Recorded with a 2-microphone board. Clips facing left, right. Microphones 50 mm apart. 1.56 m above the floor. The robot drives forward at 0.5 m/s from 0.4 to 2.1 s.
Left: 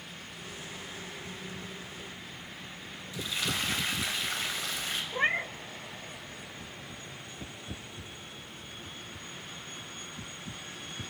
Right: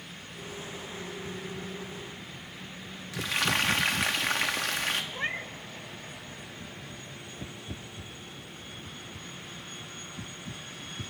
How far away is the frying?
About 2.5 m.